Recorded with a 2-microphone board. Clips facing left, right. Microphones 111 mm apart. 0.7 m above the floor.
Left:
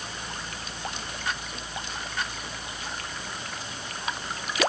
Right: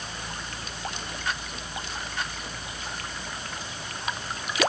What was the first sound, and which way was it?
Only background noise.